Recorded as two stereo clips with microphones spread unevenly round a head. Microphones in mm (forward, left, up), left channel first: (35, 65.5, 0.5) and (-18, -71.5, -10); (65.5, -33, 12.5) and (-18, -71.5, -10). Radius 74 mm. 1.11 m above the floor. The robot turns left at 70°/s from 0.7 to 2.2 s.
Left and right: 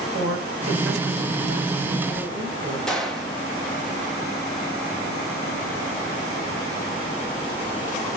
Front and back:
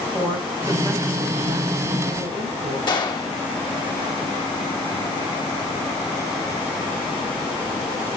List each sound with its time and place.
0.1 s a woman speaking: 90° right, 5 m; by 2.8 s 165° left, 5 m
2.9 s a gunshot: 20° right, 1.9 m